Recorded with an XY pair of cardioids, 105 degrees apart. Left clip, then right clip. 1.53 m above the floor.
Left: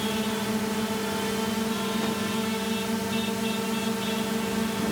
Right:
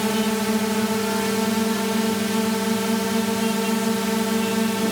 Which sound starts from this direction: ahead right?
A drone, at 0.0 s.